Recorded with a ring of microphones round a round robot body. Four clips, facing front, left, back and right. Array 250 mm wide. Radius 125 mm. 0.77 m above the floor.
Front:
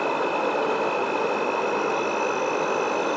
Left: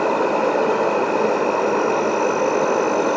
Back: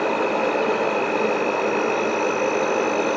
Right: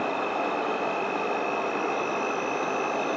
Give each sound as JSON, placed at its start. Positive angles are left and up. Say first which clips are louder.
{"t": 0.0, "sound": "an insect", "louder": "left 9 dB, back 3 dB", "azimuth_deg": 110, "distance_m": 0.8}